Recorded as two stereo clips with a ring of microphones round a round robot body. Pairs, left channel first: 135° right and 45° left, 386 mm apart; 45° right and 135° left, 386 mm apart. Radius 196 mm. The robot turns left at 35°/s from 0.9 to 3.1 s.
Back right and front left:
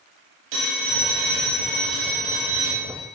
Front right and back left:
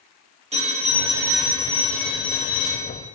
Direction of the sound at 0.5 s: 60° left.